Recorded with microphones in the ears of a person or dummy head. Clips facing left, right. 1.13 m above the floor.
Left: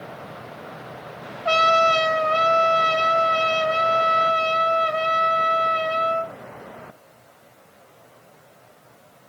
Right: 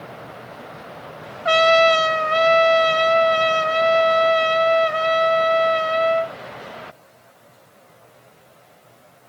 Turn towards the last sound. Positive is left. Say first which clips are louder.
# right 5 dB
turn(degrees=-20)  # may be behind; listen again after turning